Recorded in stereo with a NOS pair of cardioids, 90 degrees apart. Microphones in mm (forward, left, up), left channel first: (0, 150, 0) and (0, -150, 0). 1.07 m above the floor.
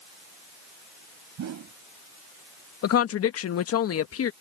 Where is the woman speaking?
55° left.